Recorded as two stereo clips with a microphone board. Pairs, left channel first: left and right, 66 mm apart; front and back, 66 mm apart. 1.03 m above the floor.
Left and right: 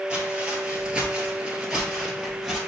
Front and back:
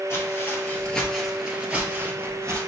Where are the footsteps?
20° right, 1.3 m; by 2.6 s 165° right, 1.4 m.